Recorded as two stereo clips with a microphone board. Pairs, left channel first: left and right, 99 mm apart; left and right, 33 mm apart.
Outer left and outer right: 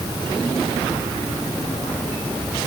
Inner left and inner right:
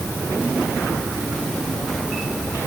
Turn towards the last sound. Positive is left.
No sound to turn to.